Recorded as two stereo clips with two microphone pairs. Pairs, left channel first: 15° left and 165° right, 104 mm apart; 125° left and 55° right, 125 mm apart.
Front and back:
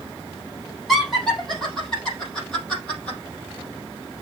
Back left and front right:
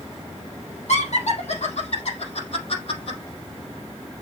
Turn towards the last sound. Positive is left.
turn(degrees=95)